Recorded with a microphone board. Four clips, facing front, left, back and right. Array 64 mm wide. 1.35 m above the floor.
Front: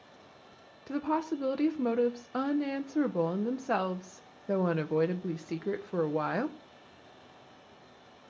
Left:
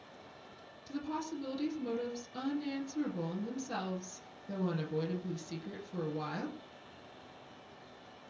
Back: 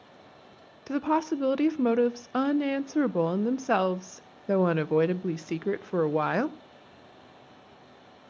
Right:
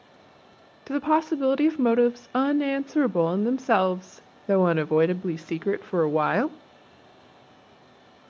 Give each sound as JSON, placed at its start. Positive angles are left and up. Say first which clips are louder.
{"t": 0.9, "sound": "a woman speaking", "louder": "right 16 dB, back 5 dB", "azimuth_deg": -110, "distance_m": 0.5}